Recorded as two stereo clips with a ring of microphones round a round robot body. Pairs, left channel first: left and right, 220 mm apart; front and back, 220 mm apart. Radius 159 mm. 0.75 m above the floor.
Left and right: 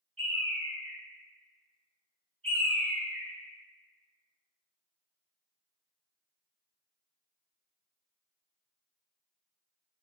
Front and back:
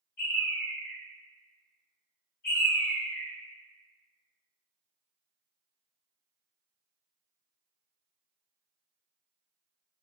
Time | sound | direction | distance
0.2 | a bird | 25° right | 1.8 m